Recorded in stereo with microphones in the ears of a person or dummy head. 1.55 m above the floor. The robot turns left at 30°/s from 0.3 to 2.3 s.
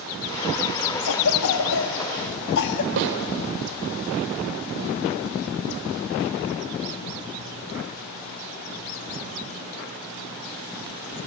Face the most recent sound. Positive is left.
turn(degrees=-50)  # may be behind; listen again after turning